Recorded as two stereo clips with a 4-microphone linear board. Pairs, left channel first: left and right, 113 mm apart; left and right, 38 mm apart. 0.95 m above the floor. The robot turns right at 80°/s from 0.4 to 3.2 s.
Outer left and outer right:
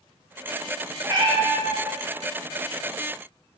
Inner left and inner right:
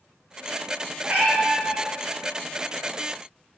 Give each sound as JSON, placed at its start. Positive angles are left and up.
{"t": 1.0, "sound": "a cat meowing", "azimuth_deg": -150, "distance_m": 0.7}